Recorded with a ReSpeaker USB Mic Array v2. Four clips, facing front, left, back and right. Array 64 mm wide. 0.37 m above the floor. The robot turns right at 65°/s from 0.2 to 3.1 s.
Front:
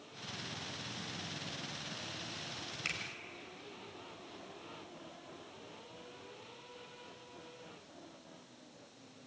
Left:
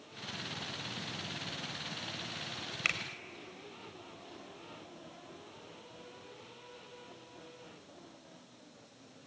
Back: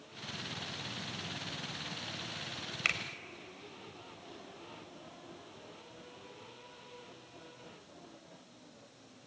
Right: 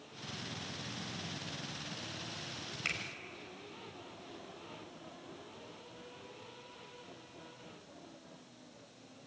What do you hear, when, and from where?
2.9 s a finger snap: 140° left, 1.5 m; by 3.0 s 150° left, 1.5 m